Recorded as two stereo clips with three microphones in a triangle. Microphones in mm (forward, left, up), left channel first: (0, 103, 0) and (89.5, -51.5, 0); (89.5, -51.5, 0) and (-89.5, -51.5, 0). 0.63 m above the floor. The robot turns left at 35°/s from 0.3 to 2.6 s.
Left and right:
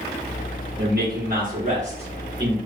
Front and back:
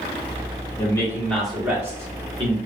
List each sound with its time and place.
0.8 s a man speaking: 65° right, 1.1 m; by 2.6 s 125° right, 1.1 m